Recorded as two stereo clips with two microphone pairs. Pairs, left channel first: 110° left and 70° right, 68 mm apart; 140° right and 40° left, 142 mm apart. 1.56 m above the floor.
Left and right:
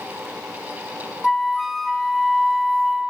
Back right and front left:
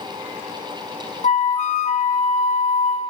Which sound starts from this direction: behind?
A flute, at 1.2 s.